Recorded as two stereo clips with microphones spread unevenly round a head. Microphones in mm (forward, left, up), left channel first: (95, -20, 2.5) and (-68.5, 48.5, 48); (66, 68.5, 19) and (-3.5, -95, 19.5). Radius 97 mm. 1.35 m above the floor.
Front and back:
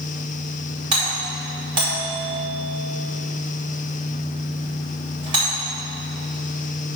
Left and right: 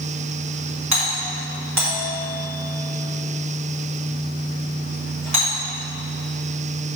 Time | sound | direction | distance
0.9 | a doorbell | 135° right | 3 m